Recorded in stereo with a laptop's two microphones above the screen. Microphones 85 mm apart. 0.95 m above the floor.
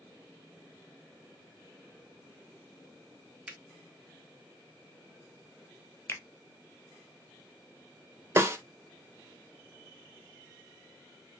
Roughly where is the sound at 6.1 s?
Left.